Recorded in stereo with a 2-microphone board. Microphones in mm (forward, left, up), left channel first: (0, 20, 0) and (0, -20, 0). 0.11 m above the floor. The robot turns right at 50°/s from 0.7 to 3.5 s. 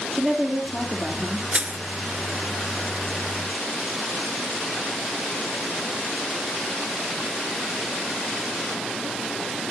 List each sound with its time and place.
0.1 s a woman speaking: 175° left, 2.5 m; by 1.4 s 150° right, 2.5 m
1.5 s crushing: 35° right (ahead or behind), 0.6 m; by 1.8 s 40° right (ahead or behind), 0.6 m